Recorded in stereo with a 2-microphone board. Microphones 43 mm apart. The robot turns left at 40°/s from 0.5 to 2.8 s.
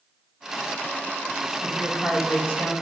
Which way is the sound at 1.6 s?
65° left.